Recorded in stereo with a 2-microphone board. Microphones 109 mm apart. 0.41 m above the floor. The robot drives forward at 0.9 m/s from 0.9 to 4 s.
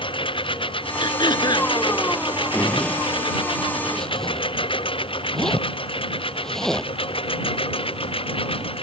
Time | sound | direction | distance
0.0 | a lawn mower | 55° left (ahead or behind) | ?
1.0 | throat clearing | 50° left (ahead or behind) | ?
2.5 | a zipper | 10° left (ahead or behind) | ?